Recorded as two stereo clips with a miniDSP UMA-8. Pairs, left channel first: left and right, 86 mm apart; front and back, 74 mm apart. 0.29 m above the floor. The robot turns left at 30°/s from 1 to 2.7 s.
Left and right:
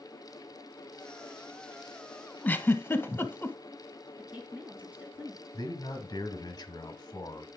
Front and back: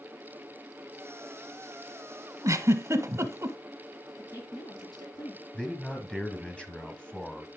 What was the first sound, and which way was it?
A giggle, 155° left.